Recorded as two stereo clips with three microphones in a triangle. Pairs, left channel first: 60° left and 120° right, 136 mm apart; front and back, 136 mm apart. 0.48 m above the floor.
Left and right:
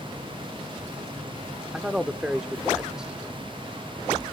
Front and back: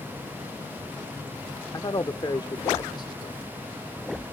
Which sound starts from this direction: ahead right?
A man speaking, at 1.7 s.